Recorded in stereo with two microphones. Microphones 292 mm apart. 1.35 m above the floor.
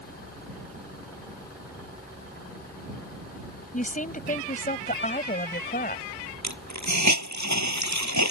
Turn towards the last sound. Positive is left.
turn(degrees=-70)  # may be behind; listen again after turning